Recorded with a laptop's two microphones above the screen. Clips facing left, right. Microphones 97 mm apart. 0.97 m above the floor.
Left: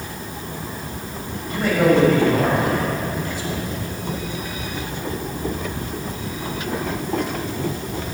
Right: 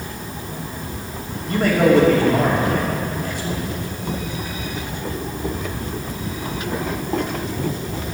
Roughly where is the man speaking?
Right.